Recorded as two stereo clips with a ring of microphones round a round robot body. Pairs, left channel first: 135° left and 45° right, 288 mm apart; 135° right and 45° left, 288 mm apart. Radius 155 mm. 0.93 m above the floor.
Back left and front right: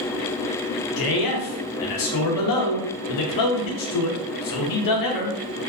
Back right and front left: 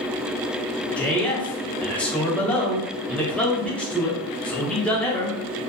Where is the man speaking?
140° left, 0.7 m.